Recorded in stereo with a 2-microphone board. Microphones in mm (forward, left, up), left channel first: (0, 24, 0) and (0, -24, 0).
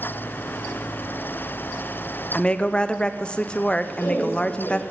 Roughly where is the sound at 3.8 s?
Left.